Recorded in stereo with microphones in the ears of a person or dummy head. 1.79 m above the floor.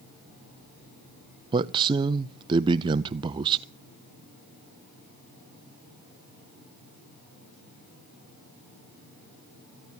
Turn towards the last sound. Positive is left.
turn(degrees=-25)  # may be behind; listen again after turning